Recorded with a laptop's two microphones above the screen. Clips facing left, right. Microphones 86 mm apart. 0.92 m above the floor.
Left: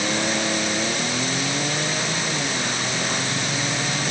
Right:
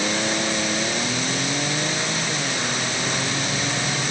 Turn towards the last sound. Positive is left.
No sound to turn to.